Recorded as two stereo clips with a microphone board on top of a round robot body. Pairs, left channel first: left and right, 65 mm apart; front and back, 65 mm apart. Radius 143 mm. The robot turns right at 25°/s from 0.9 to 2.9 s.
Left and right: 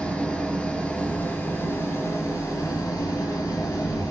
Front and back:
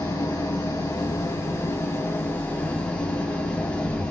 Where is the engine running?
20° left, 4.5 m; by 4.1 s 70° left, 4.5 m.